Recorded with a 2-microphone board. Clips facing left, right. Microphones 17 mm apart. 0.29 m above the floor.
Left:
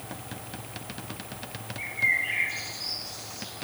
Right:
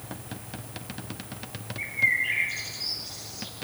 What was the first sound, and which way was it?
A bird, 15° right (ahead or behind).